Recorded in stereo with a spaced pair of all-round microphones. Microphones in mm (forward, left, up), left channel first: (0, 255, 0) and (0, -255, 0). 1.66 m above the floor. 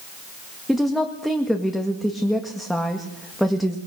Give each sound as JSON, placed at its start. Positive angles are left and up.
{"t": 0.7, "sound": "a woman speaking", "side_deg": 0, "distance_m": 2.0}